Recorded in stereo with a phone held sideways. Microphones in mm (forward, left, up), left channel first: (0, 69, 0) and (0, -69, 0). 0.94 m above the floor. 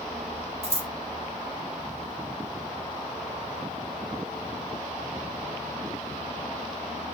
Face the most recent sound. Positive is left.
turn(degrees=-45)  # may be behind; listen again after turning